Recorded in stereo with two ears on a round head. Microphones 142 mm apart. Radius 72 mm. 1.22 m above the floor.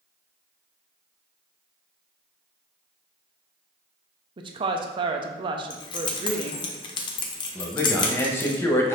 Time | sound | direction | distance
4.4 | a woman speaking | 30° right (ahead or behind) | 0.6 m
5.7 | keys jangling | 30° left (ahead or behind) | 0.6 m
7.5 | a man speaking | 15° left (ahead or behind) | 0.7 m